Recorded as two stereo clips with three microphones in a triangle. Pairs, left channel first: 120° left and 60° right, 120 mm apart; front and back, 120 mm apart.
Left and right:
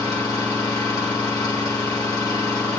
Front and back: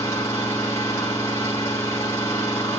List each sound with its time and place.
0.0 s an engine running: 65° left, 3 m